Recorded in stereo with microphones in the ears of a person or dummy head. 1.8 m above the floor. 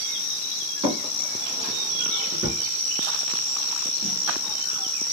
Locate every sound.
0.8 s a drawer: 15° right (ahead or behind), 1.9 m